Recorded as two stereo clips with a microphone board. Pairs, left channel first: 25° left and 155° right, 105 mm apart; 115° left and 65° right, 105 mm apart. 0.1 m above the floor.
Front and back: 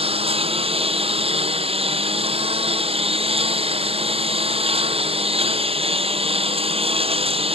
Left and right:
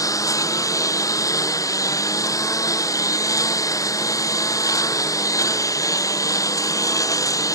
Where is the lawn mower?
175° left.